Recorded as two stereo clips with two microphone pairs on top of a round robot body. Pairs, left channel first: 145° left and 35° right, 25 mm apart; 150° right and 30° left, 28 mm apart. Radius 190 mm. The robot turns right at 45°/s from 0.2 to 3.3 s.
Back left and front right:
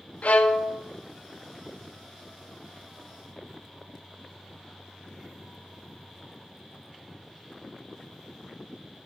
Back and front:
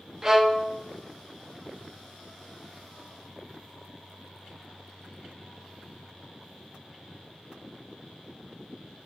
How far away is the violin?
About 0.7 m.